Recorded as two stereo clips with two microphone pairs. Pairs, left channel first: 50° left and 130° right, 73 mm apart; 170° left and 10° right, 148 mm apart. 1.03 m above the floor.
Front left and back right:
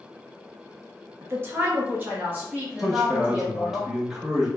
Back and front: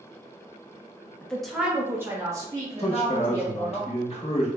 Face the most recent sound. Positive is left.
turn(degrees=145)